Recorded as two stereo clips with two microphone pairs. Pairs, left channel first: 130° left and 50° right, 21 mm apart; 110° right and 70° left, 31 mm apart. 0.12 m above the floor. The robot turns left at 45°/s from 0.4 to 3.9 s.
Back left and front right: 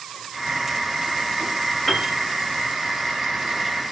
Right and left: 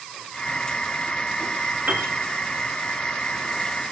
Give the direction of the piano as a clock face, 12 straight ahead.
10 o'clock.